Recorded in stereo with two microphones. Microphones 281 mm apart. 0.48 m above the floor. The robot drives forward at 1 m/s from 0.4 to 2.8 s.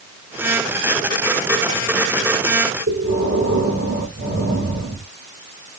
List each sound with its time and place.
2.9 s breathing: 40° right (ahead or behind), 5 m